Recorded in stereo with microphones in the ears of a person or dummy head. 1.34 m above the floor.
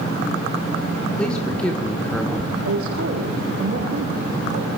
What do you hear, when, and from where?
1.2 s a man speaking: 5° left (ahead or behind), 1.8 m
2.6 s a woman speaking: 75° right (ahead or behind), 1.4 m